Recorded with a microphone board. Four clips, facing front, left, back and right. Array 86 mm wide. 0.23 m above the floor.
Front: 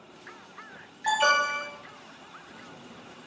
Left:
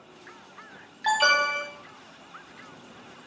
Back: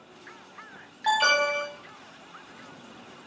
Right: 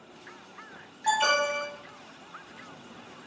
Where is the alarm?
115° left, 0.7 m.